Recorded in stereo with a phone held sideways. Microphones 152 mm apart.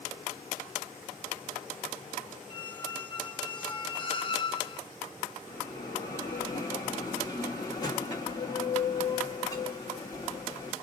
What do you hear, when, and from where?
2.5 s a squeak: 35° left (ahead or behind), 0.5 m
5.5 s a bell: 25° left (ahead or behind), 1.4 m